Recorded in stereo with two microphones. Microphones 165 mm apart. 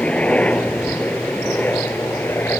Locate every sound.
0.0 s a helicopter: 5° left (ahead or behind); by 2.6 s 10° left (ahead or behind)